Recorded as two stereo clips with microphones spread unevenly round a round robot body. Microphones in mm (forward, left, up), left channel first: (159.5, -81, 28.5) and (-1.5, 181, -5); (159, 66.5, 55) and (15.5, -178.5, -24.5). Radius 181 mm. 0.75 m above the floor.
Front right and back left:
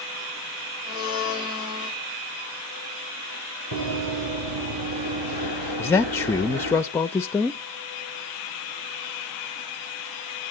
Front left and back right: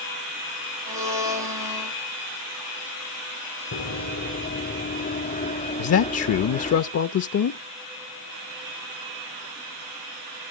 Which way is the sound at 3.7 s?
85° left.